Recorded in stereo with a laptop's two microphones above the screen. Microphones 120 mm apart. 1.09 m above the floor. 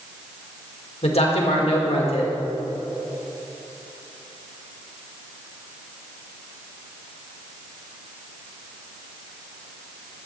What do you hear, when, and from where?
1.0 s a man speaking: 60° left (ahead or behind), 1.8 m